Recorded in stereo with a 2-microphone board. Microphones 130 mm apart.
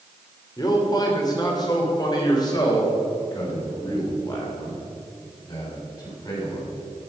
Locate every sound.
0.6 s a man speaking: 30° left (ahead or behind), 3 m